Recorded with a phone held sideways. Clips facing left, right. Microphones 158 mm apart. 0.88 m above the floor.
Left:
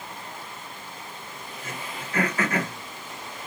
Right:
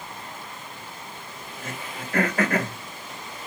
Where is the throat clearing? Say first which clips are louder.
Right 2 dB; 55° right (ahead or behind), 1.3 m.